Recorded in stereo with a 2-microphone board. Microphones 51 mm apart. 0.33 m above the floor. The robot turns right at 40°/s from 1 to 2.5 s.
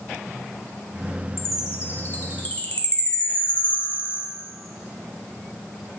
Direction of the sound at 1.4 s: 105° left.